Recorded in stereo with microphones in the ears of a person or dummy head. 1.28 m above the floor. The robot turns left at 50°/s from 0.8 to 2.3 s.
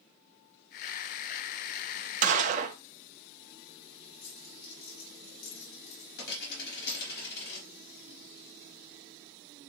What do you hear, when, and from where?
2.2 s a gunshot: 40° right (ahead or behind), 0.5 m
4.2 s a dropped coin: 55° left (ahead or behind), 3.5 m